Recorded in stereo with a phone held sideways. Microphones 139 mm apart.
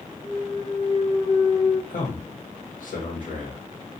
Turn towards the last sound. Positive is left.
turn(degrees=80)